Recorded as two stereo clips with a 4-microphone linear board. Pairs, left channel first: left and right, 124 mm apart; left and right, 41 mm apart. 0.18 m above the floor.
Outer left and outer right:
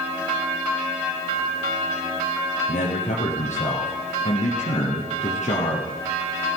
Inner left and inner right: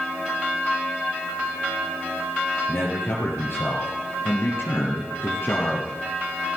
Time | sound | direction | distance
2.7 | a man speaking | 60° left (ahead or behind) | 4 m